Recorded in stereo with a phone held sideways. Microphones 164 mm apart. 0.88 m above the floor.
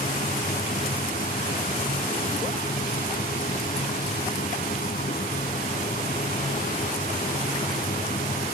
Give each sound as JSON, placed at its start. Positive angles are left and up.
{"t": 0.0, "sound": "a machine running", "side_deg": 60}